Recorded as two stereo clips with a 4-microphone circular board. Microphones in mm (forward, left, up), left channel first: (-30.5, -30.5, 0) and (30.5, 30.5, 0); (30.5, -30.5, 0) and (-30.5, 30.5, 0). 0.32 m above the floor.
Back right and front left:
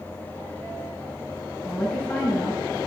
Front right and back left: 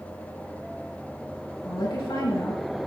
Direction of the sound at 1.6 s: 65° right.